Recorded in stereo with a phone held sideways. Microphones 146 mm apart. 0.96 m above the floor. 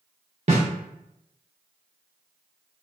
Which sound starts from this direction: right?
A snare drum, at 0.5 s.